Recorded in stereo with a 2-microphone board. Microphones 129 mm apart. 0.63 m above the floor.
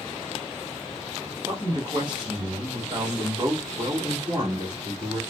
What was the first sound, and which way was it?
A man speaking, 35° right (ahead or behind).